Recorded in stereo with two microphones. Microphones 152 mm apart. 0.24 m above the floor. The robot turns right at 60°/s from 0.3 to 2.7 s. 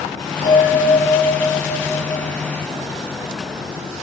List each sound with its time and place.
0.4 s a bell: 150° right, 1.9 m; by 2.2 s 45° right, 1.9 m